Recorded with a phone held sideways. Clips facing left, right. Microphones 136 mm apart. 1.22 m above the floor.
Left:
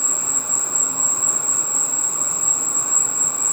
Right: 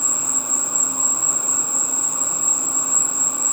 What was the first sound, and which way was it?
An insect, 15° right (ahead or behind).